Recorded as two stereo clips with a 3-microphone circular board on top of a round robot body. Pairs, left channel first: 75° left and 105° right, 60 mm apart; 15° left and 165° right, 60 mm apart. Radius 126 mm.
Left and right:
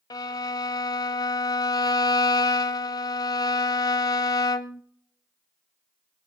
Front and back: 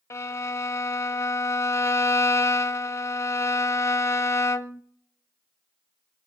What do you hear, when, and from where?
0.1 s a violin: 60° left, 0.7 m